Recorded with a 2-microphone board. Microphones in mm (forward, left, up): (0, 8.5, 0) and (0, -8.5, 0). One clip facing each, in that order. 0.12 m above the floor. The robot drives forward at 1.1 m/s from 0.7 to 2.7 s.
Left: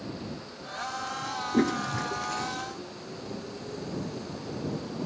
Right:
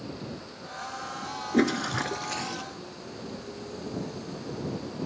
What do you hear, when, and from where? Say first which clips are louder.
1.5 s a toilet flushing: right 2 dB; 30° right (ahead or behind); by 2.6 s 20° right (ahead or behind)